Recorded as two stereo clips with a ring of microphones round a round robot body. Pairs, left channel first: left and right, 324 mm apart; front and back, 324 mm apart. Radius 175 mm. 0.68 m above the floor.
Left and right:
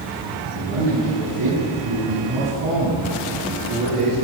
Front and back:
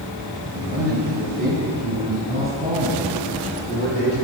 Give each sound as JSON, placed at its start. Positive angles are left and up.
{"t": 0.5, "sound": "a man speaking", "azimuth_deg": -115, "distance_m": 6.5}